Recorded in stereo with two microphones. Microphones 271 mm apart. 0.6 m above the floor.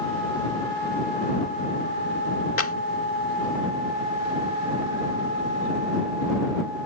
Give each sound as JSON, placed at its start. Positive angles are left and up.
{"t": 2.6, "sound": "a clap", "side_deg": 55}